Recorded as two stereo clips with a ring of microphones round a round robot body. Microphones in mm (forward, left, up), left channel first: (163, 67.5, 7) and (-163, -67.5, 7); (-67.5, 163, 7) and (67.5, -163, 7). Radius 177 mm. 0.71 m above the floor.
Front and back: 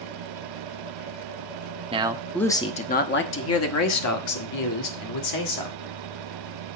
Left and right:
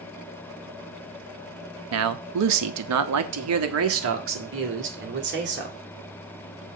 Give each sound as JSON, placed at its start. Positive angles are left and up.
{"t": 1.9, "sound": "a man speaking", "azimuth_deg": -90, "distance_m": 0.8}